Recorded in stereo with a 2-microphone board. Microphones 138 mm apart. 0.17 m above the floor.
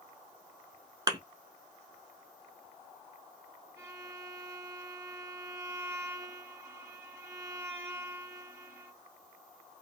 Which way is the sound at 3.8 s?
20° right (ahead or behind).